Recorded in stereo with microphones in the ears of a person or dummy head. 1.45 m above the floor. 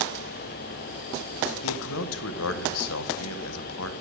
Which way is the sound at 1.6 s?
80° left.